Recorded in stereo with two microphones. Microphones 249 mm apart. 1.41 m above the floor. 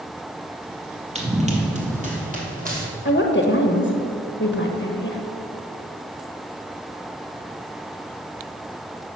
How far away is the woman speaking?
About 1.2 m.